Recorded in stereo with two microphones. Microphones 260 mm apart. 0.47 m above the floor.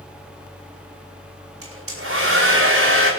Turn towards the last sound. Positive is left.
turn(degrees=-55)  # may be behind; listen again after turning